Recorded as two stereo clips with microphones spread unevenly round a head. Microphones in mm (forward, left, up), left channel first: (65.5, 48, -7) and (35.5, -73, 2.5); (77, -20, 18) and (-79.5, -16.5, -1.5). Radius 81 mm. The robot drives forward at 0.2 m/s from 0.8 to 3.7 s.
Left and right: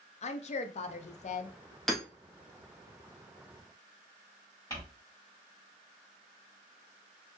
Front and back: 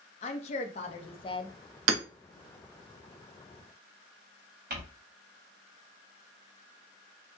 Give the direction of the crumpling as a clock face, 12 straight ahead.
7 o'clock.